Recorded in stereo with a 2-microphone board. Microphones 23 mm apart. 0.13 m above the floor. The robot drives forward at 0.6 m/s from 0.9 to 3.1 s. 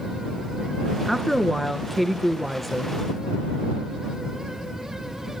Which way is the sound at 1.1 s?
5° left (ahead or behind).